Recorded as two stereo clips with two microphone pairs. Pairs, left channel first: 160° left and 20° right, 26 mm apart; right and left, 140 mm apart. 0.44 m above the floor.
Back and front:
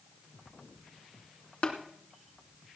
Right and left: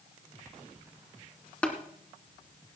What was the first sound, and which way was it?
Tapping, 170° right.